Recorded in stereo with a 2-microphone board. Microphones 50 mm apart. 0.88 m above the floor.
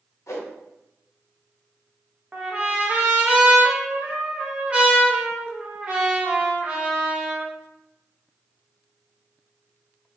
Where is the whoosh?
70° left (ahead or behind), 0.8 m.